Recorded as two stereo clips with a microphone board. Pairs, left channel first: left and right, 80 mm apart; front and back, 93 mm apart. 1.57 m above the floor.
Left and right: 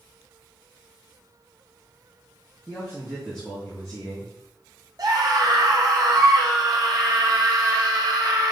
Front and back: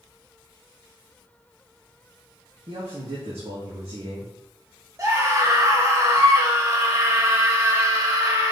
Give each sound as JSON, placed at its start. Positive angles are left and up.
{"t": 2.7, "sound": "a man speaking", "azimuth_deg": 170, "distance_m": 2.0}
{"t": 5.0, "sound": "a scream", "azimuth_deg": -130, "distance_m": 2.0}